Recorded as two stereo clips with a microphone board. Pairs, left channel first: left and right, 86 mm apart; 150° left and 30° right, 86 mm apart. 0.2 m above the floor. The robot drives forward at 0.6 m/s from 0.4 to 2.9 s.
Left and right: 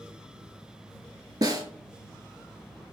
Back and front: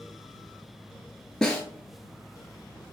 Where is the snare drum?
130° right, 0.7 m; by 1.6 s 135° right, 0.8 m.